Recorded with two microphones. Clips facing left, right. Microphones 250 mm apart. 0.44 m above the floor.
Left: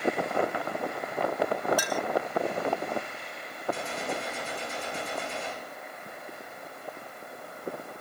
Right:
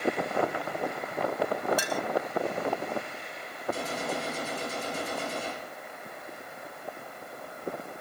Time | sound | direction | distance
1.8 | a clink | 25° right (ahead or behind) | 0.8 m
3.7 | a gunshot | 45° right (ahead or behind) | 7 m